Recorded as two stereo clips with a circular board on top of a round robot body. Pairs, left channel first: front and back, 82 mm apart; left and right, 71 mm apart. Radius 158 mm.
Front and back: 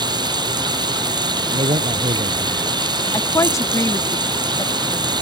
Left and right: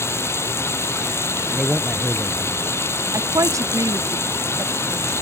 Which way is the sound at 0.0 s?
145° left.